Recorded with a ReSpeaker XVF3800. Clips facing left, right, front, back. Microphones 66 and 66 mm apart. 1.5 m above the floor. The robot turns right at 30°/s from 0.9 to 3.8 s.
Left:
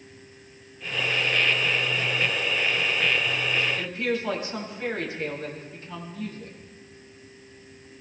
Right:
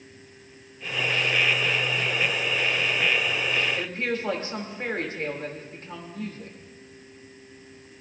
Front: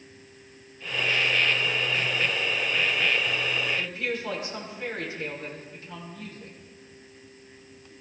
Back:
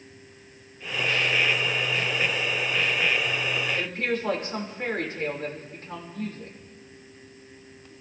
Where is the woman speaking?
140° right, 3 m.